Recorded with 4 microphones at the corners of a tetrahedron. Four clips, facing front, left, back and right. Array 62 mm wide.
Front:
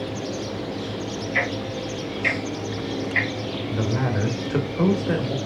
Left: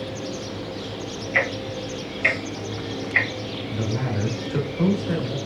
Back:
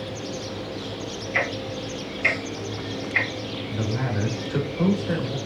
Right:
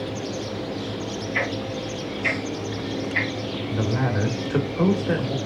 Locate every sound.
1.3 s ticking: 105° left, 2 m
3.7 s a man speaking: 50° right, 1.0 m